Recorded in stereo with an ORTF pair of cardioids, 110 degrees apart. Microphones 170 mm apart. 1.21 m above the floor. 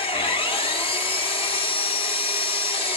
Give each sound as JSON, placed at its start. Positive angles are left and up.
{"t": 0.0, "sound": "an engine running", "azimuth_deg": 35, "distance_m": 1.9}